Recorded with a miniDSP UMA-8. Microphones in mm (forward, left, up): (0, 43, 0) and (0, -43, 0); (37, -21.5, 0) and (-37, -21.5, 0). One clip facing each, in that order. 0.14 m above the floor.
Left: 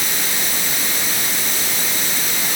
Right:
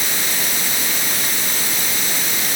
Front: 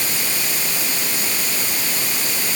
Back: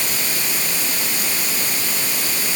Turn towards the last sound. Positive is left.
No sound to turn to.